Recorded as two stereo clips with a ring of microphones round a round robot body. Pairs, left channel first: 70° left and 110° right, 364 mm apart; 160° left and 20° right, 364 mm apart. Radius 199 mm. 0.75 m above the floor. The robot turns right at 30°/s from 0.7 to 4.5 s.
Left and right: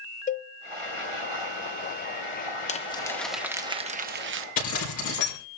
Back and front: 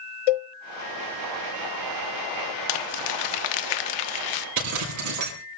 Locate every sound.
0.3 s a cowbell: 140° left, 0.5 m
2.7 s crumpling: 140° left, 1.0 m; by 4.5 s 170° right, 1.0 m
4.6 s a zipper: 20° left, 6.5 m